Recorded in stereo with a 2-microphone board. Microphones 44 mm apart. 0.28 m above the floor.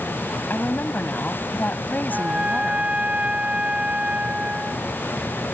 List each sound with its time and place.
0.5 s a woman speaking: 45° left (ahead or behind)
2.1 s a trumpet: 30° right (ahead or behind)